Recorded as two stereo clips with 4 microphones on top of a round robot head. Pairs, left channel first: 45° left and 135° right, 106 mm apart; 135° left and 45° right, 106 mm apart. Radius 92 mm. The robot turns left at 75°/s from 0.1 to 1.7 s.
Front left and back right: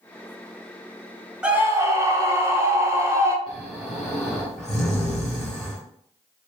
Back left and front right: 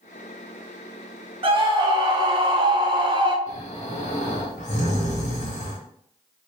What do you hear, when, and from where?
1.4 s a scream: 55° right, 1.2 m; by 3.4 s 75° right, 1.2 m
3.5 s snoring: 135° left, 1.3 m